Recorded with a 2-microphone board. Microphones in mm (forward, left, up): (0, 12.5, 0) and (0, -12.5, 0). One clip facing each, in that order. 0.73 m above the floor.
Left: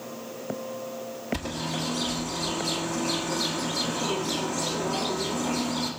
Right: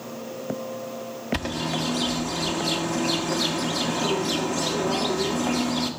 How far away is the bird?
About 1.7 m.